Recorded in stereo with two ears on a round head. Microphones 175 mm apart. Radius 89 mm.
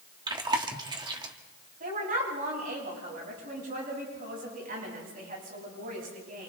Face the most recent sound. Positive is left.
turn(degrees=-45)  # may be behind; listen again after turning